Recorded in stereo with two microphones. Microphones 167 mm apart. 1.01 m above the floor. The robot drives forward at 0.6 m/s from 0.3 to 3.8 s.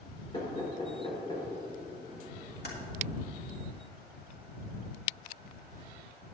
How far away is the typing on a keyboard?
About 2 m.